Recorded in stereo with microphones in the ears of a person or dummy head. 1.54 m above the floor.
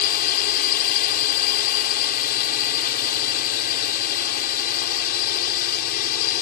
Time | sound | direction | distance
0.0 | a drone | 50° left (ahead or behind) | ?